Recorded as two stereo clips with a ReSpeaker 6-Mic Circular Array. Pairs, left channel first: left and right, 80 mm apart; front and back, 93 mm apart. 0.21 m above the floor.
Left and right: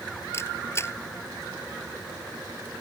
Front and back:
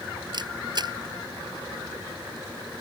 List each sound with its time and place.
0.3 s a camera shutter: 145° left